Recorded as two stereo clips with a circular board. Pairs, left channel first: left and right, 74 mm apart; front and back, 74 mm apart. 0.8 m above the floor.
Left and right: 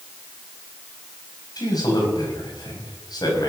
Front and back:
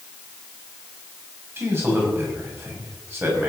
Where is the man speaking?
120° left, 5.5 m.